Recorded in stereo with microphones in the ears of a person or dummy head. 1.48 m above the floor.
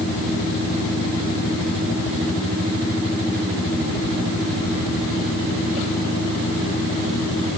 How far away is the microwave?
I don't hear a microwave.